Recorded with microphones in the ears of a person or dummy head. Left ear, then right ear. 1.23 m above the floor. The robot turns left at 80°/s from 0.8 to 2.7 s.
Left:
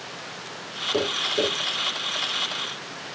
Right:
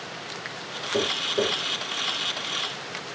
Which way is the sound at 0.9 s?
25° left (ahead or behind).